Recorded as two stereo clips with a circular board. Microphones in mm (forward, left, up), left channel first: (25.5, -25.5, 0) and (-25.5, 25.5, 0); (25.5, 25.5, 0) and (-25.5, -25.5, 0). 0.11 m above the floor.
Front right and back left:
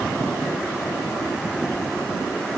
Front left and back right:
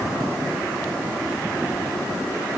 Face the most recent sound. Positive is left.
No sound to turn to.